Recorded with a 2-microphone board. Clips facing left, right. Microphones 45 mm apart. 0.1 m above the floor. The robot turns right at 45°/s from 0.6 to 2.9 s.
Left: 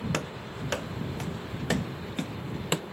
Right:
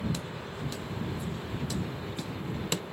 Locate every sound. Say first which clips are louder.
0.1 s running footsteps: left 4 dB; 60° left (ahead or behind); by 2.8 s 20° left (ahead or behind)